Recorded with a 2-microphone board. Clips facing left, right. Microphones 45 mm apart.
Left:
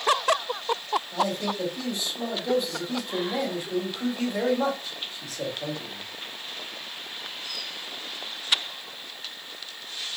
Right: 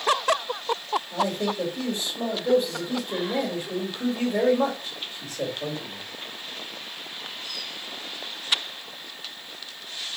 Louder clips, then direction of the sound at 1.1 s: Right 3 dB; 40° right (ahead or behind).